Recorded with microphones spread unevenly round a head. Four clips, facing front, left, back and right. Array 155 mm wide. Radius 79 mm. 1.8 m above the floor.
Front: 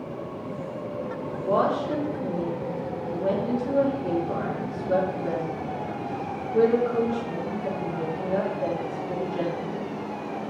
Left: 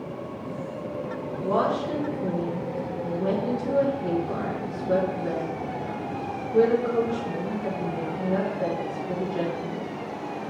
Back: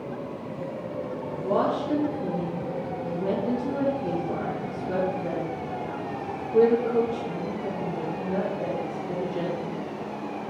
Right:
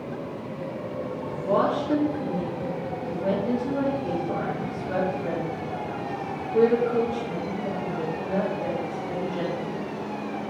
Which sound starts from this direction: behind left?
A woman speaking, at 1.4 s.